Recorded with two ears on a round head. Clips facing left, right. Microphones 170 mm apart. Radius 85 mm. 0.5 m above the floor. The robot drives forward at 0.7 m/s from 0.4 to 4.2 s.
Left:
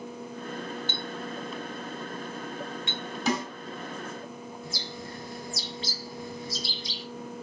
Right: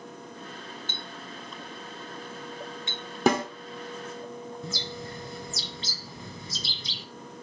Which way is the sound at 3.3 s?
45° right (ahead or behind).